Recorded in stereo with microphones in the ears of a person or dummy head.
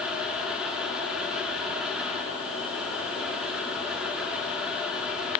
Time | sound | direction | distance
0.0 | a fan | 5° right (ahead or behind) | 4 m